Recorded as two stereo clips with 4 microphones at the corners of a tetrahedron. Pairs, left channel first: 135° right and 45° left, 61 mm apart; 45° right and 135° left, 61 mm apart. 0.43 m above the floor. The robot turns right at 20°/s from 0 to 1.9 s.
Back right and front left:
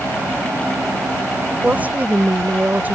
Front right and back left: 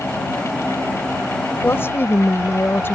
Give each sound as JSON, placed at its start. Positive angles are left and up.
{"t": 1.6, "sound": "a woman speaking", "azimuth_deg": -15}